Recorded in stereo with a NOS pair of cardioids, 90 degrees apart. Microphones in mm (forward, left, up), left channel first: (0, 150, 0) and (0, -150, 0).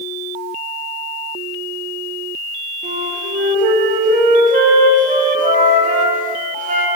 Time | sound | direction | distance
2.8 | a flute | 25° right | 1.3 m